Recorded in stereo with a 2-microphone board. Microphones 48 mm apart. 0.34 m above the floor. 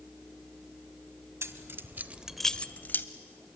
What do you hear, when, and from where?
1.4 s keys jangling: 65° right (ahead or behind), 1.3 m; by 3.0 s 45° left (ahead or behind), 1.1 m